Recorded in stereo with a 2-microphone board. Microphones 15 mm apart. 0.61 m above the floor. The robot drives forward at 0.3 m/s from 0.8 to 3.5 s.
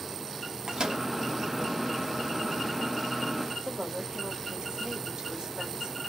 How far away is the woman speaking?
About 3.5 m.